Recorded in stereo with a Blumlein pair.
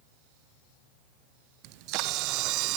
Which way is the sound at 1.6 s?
40° right.